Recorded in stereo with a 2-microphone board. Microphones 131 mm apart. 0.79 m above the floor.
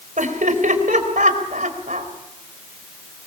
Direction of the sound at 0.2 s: 80° right.